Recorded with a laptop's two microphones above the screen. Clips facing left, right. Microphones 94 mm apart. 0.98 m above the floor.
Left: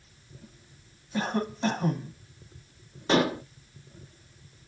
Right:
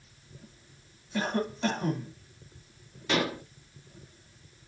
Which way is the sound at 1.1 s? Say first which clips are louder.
Left 1 dB; 20° left (ahead or behind).